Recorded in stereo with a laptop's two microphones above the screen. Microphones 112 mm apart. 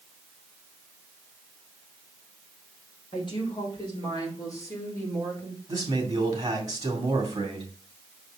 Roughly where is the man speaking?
Right.